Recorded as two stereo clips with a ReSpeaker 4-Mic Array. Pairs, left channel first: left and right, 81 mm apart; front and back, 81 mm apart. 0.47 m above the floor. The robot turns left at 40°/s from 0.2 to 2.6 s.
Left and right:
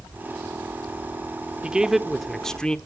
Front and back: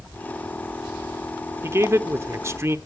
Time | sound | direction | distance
1.6 | a man speaking | 160° right | 0.9 m